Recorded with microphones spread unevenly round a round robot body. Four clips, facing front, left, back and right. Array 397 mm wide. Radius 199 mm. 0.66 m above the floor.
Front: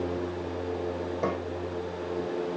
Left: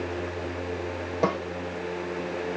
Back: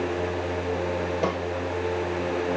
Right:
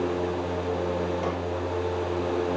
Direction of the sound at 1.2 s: 95° left.